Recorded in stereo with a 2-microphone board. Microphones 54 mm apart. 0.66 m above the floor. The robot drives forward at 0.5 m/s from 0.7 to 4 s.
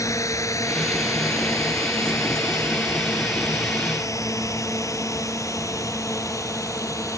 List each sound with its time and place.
0.0 s a drone: 80° left